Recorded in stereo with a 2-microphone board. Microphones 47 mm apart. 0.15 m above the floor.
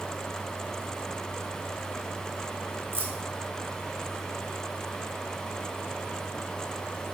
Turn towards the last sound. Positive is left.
turn(degrees=-45)  # may be behind; listen again after turning